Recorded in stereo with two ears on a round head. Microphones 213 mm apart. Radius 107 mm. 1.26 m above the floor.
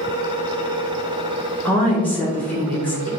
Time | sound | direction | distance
1.6 | a woman speaking | 10° left (ahead or behind) | 1.2 m